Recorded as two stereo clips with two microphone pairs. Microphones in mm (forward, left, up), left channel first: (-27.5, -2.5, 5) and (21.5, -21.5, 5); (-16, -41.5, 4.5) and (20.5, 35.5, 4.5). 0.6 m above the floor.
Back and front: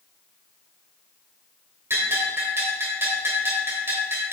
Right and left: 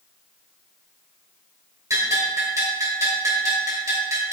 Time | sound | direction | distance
1.9 | a bell | 15° left | 2.5 m